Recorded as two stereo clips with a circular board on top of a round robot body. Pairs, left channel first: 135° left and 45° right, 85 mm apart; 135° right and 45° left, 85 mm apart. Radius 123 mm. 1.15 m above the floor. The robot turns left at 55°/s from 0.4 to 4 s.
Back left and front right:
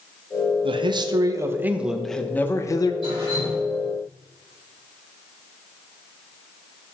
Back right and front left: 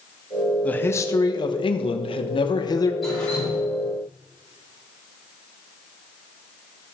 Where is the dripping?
50° right, 5.5 m; by 3.6 s 80° right, 5.5 m.